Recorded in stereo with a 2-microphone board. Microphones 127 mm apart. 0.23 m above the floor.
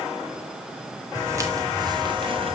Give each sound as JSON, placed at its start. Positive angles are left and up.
{"t": 1.1, "sound": "footsteps", "side_deg": -20, "distance_m": 3.5}